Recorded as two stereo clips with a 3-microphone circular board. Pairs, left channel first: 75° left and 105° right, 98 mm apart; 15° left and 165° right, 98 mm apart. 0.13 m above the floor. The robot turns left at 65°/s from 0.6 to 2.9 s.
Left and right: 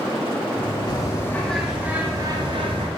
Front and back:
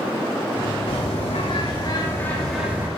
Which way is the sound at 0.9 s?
35° left.